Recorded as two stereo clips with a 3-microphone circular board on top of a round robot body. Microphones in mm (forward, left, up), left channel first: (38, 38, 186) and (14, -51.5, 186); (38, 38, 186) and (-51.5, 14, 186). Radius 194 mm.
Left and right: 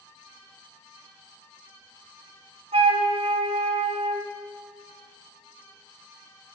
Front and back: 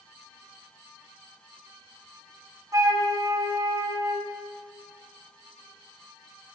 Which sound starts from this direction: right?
A flute, at 2.7 s.